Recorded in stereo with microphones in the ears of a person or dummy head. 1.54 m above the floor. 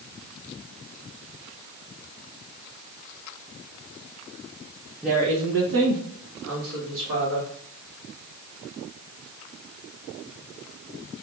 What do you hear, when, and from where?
5.0 s a woman speaking: centre (ahead or behind), 0.7 m; by 7.5 s 70° right (ahead or behind), 3.5 m